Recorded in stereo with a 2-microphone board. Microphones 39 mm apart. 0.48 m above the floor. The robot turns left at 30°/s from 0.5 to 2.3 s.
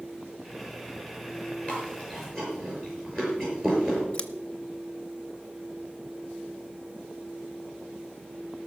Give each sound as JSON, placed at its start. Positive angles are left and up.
{"t": 1.7, "sound": "chewing", "side_deg": 30, "distance_m": 6.0}
{"t": 4.1, "sound": "scissors", "side_deg": 30, "distance_m": 0.8}